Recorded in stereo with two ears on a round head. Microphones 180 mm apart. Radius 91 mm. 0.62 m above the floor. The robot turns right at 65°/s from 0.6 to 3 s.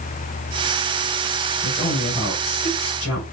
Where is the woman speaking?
10° right, 6.5 m; by 3.2 s 80° left, 6.5 m.